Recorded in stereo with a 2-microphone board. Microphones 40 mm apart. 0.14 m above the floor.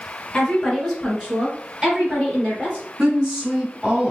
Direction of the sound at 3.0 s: 30° right (ahead or behind).